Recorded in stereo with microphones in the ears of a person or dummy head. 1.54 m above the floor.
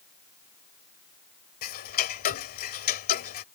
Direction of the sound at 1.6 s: 50° left (ahead or behind).